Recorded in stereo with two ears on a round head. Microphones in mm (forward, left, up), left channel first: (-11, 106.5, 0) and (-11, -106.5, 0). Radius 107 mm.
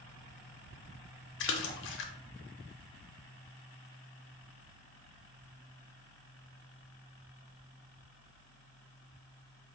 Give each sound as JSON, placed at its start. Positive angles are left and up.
{"t": 1.4, "sound": "a splash", "side_deg": 55, "distance_m": 0.5}